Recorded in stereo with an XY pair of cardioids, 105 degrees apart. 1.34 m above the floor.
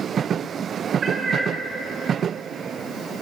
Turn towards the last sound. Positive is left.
turn(degrees=-45)